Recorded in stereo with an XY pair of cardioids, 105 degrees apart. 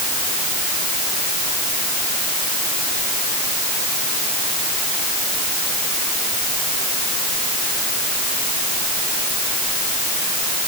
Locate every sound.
Only background noise.